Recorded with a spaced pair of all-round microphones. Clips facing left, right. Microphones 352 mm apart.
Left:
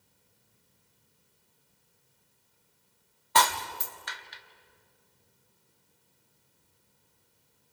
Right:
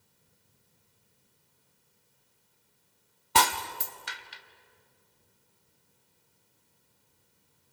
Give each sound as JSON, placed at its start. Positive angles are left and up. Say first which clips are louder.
{"t": 3.4, "sound": "breaking glass", "louder": "even", "side_deg": -40, "distance_m": 1.1}